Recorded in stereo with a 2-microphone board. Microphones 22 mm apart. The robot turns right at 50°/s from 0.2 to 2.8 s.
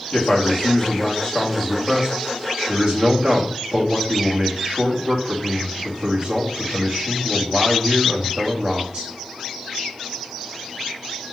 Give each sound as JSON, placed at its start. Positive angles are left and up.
{"t": 0.1, "sound": "a man speaking", "azimuth_deg": 115, "distance_m": 1.1}